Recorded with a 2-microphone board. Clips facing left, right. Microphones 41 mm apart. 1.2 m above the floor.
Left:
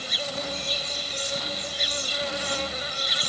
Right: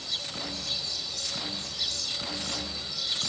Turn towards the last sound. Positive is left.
turn(degrees=50)  # may be behind; listen again after turning